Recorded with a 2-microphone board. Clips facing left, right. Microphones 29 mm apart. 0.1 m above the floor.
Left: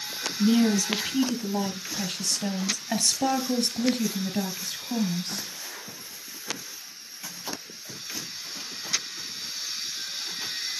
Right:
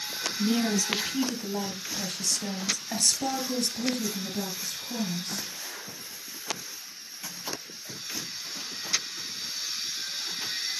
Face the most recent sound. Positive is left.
turn(degrees=30)  # may be behind; listen again after turning